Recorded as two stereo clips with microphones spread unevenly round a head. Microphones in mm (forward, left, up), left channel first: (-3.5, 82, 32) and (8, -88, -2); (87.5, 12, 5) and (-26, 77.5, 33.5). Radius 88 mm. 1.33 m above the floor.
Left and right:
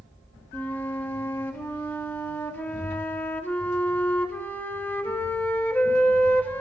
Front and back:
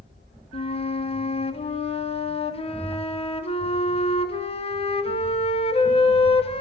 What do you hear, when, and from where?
0.5 s a flute: 10° left, 3 m